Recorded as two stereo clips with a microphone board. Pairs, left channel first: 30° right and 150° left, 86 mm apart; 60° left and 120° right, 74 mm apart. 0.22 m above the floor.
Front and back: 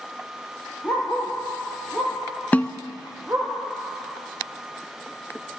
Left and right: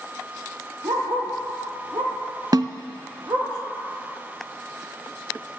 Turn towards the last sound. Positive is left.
turn(degrees=-100)